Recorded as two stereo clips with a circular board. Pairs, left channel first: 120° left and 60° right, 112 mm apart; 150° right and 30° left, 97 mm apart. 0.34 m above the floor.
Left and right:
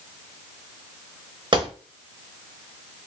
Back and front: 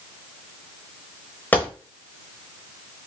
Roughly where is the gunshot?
Right.